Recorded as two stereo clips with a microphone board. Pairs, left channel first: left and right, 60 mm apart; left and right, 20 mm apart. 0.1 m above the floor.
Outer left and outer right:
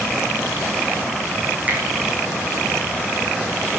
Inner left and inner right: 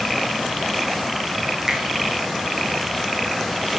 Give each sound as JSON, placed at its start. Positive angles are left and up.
{"t": 1.7, "sound": "a finger snap", "side_deg": -25, "distance_m": 4.5}